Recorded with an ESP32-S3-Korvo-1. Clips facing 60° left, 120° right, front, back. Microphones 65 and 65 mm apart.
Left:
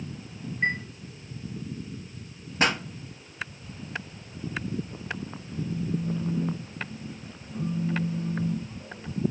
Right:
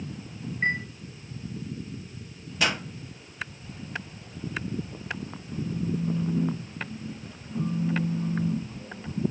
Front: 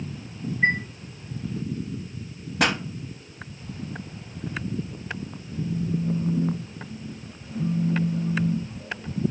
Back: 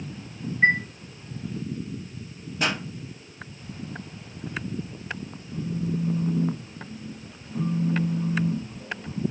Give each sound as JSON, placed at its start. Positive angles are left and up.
{"t": 0.6, "sound": "a chime", "azimuth_deg": 170, "distance_m": 0.8}
{"t": 2.6, "sound": "a pop", "azimuth_deg": 10, "distance_m": 0.5}
{"t": 5.5, "sound": "a phone buzzing", "azimuth_deg": 180, "distance_m": 0.8}